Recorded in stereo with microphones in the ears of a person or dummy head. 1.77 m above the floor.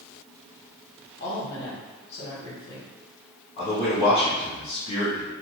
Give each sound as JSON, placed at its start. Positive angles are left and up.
{"t": 1.2, "sound": "a woman speaking", "side_deg": 55, "distance_m": 1.4}
{"t": 3.6, "sound": "a man speaking", "side_deg": 35, "distance_m": 1.0}